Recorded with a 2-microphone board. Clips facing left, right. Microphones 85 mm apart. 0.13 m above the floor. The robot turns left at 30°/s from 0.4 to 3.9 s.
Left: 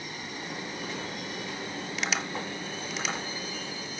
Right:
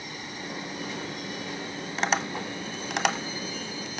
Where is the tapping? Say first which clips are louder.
Right 6 dB; 35° right (ahead or behind), 1.1 m; by 4.0 s 65° right (ahead or behind), 1.1 m.